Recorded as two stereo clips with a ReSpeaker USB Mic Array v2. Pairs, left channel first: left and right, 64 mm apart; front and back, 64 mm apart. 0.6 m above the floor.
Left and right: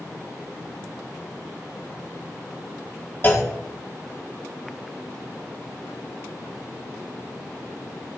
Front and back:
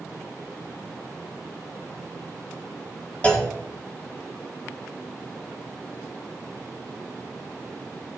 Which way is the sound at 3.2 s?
55° left.